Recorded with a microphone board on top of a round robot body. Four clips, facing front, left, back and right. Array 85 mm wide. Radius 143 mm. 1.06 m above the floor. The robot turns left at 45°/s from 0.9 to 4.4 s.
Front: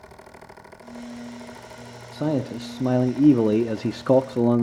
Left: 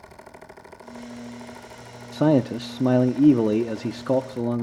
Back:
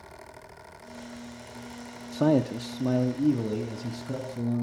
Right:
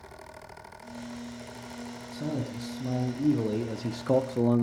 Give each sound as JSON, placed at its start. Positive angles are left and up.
{"t": 2.1, "sound": "a man speaking", "azimuth_deg": 100, "distance_m": 0.5}